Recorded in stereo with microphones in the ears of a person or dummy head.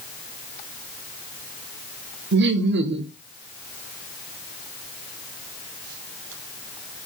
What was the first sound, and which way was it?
Laughter, 55° right (ahead or behind).